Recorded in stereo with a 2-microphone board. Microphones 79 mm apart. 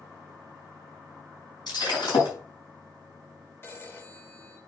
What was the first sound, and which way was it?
Breaking glass, 65° left (ahead or behind).